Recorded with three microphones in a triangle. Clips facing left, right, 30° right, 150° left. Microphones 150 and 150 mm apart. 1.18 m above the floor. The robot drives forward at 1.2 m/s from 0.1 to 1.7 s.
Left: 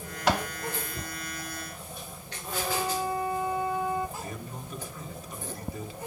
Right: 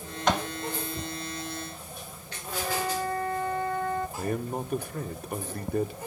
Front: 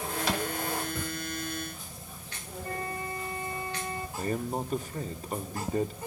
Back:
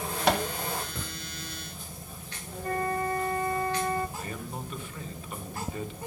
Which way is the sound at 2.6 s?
170° left.